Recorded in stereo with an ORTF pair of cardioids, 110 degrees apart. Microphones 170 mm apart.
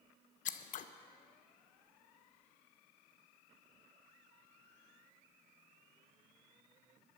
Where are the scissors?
50° left, 0.8 m.